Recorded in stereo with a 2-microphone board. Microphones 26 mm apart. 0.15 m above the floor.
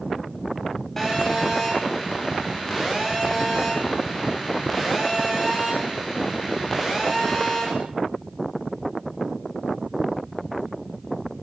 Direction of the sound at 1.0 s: 15° left (ahead or behind).